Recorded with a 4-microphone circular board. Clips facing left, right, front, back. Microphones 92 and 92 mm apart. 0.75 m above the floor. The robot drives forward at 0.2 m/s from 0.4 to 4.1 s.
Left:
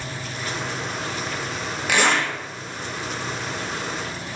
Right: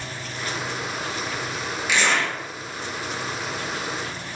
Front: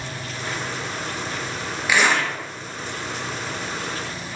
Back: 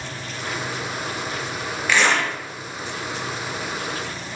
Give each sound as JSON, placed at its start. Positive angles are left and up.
{"t": 1.9, "sound": "a zipper", "azimuth_deg": 75, "distance_m": 0.5}